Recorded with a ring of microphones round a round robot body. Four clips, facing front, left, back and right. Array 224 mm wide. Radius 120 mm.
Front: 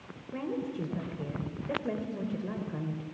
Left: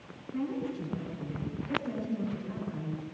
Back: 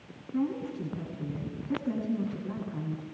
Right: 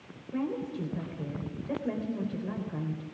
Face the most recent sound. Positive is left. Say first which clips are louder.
# right 1 dB, back 3 dB
turn(degrees=-30)